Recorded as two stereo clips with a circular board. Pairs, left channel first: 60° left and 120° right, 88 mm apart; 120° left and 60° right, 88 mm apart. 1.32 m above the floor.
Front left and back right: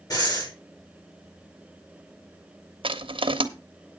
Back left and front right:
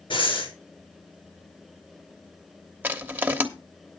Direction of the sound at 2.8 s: 130° right.